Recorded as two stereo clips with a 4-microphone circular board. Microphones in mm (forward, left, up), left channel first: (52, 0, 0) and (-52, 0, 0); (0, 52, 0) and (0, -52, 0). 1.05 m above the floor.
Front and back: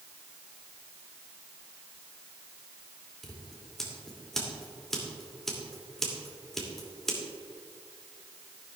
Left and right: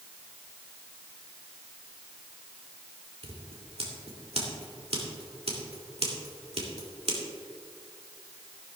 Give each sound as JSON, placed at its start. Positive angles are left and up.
{"t": 3.2, "sound": "scissors", "azimuth_deg": -85, "distance_m": 2.5}